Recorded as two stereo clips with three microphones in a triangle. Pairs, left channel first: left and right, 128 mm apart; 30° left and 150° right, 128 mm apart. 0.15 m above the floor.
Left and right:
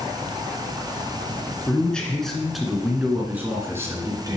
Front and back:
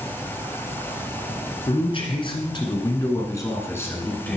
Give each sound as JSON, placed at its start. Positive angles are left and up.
{"t": 1.7, "sound": "a man speaking", "azimuth_deg": 15, "distance_m": 2.0}